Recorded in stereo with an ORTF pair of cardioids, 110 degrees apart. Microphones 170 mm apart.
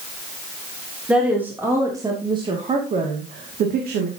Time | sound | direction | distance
1.1 | a woman speaking | 5° right | 4 m